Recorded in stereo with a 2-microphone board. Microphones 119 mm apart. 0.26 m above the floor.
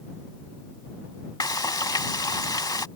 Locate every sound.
1.4 s frying: 35° left (ahead or behind)